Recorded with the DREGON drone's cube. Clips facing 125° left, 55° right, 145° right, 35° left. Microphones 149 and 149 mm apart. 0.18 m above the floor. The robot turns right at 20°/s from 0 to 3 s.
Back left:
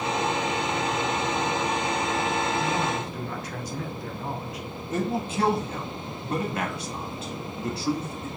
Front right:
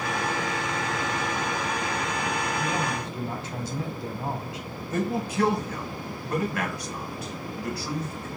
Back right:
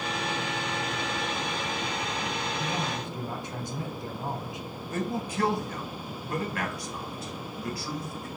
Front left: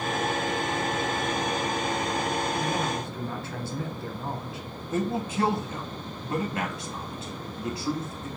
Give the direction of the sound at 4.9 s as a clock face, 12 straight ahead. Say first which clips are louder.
Even, front left 4 dB; 9 o'clock.